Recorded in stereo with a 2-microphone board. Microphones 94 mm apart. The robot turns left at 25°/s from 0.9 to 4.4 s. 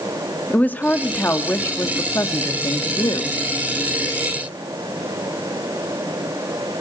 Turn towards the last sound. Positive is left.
turn(degrees=65)